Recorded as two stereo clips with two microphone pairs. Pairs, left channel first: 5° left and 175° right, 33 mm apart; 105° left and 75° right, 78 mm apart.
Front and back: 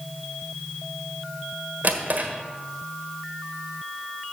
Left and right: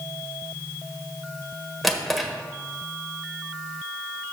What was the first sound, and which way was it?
A drawer, 165° right.